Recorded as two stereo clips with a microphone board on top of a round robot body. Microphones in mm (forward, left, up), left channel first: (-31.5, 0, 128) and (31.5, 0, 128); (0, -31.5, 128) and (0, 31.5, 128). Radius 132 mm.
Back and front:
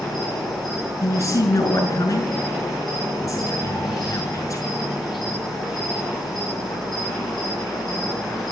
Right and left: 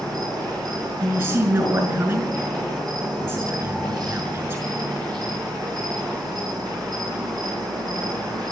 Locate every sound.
0.0 s an insect: 95° left, 9.5 m
1.0 s a man speaking: 140° left, 5.5 m